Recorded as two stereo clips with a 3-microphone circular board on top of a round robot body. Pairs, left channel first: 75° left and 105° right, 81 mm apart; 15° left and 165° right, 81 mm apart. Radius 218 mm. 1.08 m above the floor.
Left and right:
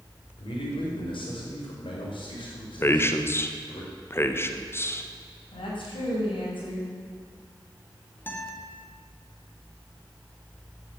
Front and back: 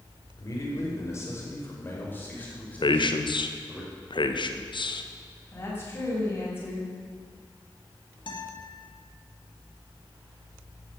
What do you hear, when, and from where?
0.4 s a man speaking: 65° left, 5.5 m; by 3.8 s 95° left, 6 m
2.8 s a man speaking: 15° left, 1.8 m
5.5 s a woman speaking: 75° left, 7 m
8.3 s a guitar: 10° left, 2.5 m